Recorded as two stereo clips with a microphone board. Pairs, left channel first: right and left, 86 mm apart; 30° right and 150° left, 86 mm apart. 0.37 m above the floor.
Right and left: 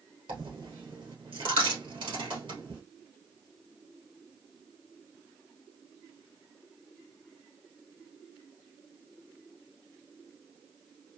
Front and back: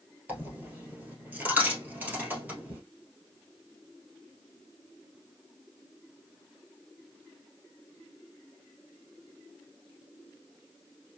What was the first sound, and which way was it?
A dropped coin, 80° left.